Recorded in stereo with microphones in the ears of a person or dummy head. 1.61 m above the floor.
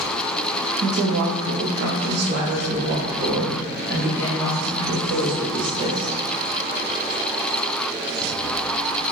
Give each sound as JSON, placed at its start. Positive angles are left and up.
{"t": 0.8, "sound": "a woman speaking", "side_deg": -55, "distance_m": 0.6}